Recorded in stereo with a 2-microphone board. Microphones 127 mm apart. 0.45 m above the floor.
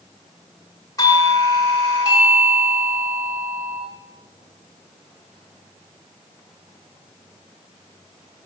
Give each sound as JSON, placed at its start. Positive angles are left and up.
{"t": 1.0, "sound": "a doorbell", "side_deg": 25, "distance_m": 1.5}